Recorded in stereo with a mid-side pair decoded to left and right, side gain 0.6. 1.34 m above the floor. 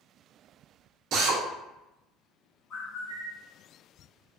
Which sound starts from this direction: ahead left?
A bird, at 2.7 s.